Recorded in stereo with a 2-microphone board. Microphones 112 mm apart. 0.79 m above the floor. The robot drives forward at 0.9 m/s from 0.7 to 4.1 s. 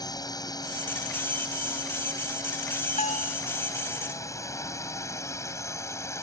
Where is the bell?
80° left; by 3.4 s 75° left (ahead or behind).